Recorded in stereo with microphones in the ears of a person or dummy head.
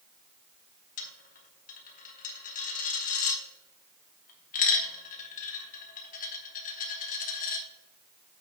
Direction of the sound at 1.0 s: 45° left (ahead or behind).